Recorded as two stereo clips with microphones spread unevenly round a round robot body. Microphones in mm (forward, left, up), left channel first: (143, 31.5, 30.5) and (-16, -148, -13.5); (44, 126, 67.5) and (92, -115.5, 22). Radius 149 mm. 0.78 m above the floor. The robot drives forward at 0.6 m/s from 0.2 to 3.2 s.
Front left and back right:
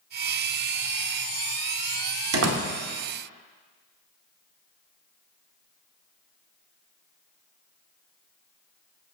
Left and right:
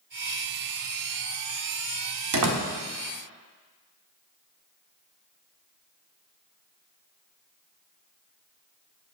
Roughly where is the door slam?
Right.